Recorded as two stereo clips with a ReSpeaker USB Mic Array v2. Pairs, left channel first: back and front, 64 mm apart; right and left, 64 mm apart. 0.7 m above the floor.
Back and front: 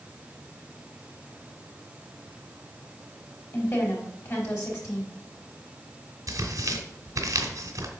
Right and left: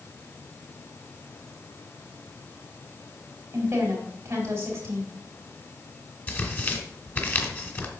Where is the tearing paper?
35° right, 1.4 m.